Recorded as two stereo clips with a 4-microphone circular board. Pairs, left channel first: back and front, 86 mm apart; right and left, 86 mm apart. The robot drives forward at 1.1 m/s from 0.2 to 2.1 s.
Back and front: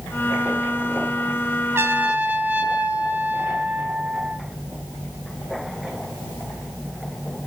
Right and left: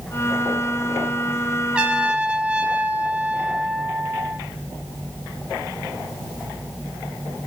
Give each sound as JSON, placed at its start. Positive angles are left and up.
{"t": 1.7, "sound": "a trumpet", "azimuth_deg": 25, "distance_m": 1.7}